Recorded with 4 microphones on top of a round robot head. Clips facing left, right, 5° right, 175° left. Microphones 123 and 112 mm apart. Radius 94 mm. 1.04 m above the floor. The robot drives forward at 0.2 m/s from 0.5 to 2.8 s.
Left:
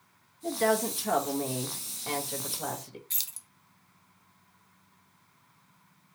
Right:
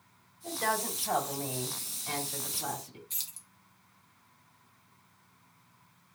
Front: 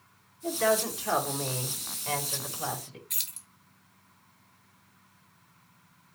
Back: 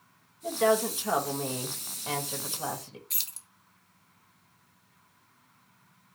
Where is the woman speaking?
100° left, 1.9 m; by 3.0 s 110° left, 2 m.